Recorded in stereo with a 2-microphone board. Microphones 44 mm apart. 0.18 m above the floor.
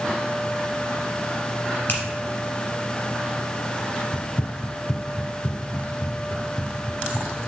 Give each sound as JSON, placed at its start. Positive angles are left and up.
{"t": 1.9, "sound": "a finger snap", "side_deg": 50, "distance_m": 3.0}
{"t": 4.1, "sound": "running footsteps", "side_deg": 30, "distance_m": 0.5}